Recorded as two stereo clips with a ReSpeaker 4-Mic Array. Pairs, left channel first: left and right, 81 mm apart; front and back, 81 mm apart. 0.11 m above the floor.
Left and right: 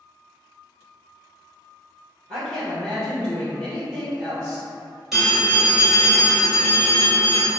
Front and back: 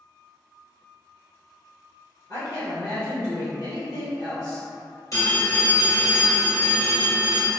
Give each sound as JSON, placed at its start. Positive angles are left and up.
{"t": 2.3, "sound": "a woman speaking", "azimuth_deg": 20, "distance_m": 1.6}
{"t": 5.1, "sound": "a phone ringing", "azimuth_deg": 0, "distance_m": 1.5}